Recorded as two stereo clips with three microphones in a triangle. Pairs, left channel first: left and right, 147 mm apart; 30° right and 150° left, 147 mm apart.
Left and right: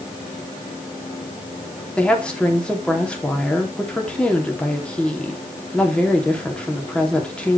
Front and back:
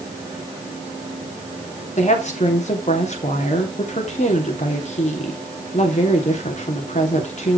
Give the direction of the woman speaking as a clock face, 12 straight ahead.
12 o'clock.